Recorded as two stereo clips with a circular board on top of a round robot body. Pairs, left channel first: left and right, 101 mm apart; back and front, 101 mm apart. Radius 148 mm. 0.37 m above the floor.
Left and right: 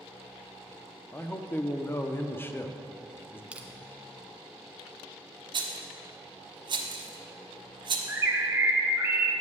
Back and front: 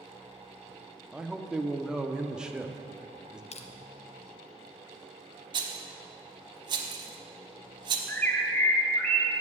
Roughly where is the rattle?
Ahead right.